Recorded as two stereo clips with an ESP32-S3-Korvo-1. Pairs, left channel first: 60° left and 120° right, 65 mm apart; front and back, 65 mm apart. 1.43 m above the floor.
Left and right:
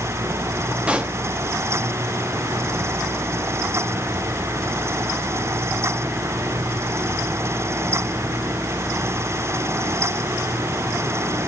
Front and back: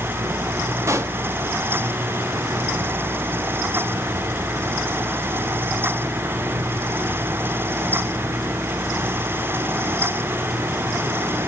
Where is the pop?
175° left, 1.0 m.